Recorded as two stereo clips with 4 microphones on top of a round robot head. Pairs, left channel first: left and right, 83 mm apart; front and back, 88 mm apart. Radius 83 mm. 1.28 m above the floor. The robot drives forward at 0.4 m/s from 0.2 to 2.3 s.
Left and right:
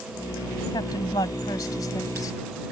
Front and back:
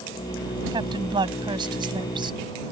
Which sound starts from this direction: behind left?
A woman speaking, at 0.7 s.